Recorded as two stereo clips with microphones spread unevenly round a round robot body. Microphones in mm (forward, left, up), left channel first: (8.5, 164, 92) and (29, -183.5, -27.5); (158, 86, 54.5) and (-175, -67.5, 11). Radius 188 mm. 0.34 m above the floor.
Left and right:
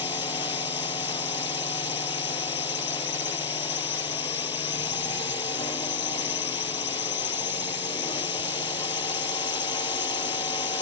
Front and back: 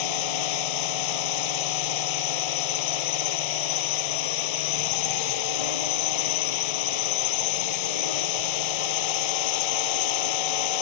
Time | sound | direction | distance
0.0 | a drone | 15° left | ?